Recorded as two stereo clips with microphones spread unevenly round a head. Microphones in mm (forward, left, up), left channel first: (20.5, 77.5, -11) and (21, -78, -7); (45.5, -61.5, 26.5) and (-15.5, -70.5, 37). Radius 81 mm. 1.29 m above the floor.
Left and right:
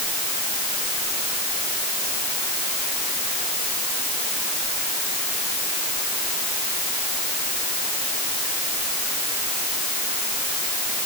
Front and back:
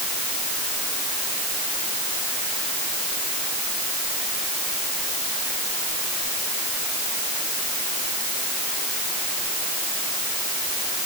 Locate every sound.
Only background noise.